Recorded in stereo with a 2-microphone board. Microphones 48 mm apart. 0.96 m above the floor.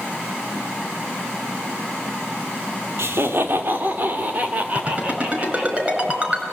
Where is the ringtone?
30° right (ahead or behind), 6 m.